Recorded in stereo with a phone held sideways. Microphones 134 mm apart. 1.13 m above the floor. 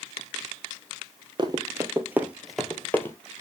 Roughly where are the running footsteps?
Right.